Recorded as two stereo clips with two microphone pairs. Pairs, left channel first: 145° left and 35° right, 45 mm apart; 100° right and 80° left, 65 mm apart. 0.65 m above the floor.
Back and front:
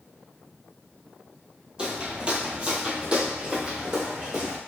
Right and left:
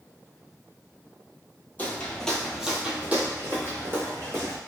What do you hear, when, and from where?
1.8 s footsteps: 90° right, 0.7 m; by 4.6 s 40° left, 1.4 m